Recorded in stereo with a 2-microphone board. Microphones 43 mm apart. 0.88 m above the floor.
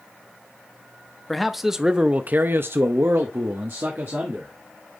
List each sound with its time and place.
1.3 s a man speaking: centre (ahead or behind), 0.9 m; by 4.5 s 55° right (ahead or behind), 1.6 m